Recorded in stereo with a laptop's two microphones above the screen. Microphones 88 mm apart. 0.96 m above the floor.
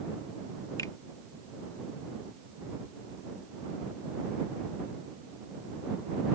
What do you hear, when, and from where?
0.8 s a finger snap: 45° left (ahead or behind)